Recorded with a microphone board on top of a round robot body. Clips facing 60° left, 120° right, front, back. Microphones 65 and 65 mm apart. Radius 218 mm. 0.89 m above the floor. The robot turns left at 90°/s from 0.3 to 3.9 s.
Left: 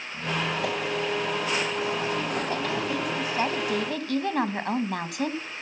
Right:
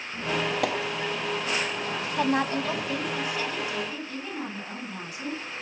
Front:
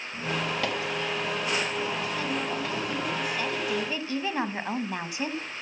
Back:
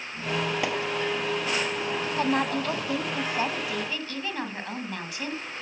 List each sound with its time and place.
0.1 s a squeak: 75° right, 2.5 m; by 3.2 s 25° left, 2.5 m
2.2 s a woman speaking: 140° right, 2 m; by 5.4 s 65° left, 2 m